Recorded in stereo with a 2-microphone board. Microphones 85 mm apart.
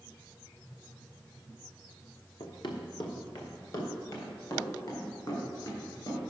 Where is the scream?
No scream in this recording.